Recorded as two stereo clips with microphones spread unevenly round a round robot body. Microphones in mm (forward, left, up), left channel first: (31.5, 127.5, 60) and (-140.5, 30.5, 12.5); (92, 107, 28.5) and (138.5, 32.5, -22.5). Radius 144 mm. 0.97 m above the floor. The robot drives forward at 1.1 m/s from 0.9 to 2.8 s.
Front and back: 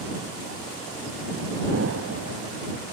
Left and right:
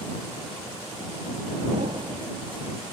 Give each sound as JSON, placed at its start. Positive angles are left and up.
{"t": 1.7, "sound": "an explosion", "azimuth_deg": -100, "distance_m": 0.7}